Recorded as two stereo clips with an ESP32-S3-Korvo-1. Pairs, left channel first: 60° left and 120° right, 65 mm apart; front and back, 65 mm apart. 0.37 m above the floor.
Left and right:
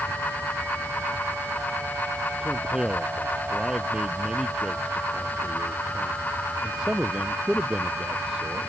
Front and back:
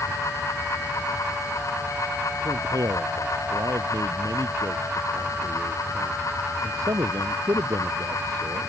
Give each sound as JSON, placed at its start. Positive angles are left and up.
{"t": 2.4, "sound": "a man speaking", "azimuth_deg": 160}